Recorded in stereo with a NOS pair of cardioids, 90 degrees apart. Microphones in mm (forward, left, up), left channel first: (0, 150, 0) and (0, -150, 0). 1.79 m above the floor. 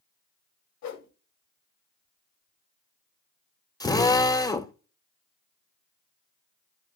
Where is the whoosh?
65° left, 1.0 m.